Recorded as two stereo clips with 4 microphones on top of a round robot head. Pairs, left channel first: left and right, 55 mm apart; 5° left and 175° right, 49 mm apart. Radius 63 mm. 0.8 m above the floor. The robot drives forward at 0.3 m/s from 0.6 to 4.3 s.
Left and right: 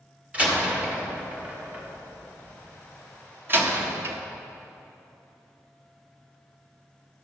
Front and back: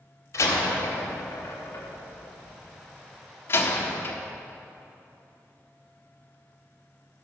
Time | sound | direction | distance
0.3 | a door slam | 20° right | 1.9 m